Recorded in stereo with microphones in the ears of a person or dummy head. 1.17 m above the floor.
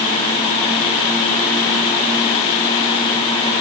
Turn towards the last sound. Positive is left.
No sound to turn to.